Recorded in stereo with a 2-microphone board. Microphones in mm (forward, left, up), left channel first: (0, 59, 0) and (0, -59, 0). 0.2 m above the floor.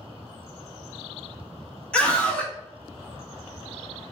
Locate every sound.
1.9 s a scream: 10° left (ahead or behind), 1.0 m